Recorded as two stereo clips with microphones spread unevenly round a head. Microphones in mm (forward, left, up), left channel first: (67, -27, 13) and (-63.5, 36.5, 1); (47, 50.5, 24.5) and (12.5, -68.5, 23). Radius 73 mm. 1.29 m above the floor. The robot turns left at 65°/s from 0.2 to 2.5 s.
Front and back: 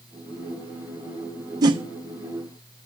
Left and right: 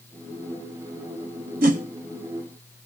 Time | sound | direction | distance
1.6 | a whoosh | 140° right | 0.9 m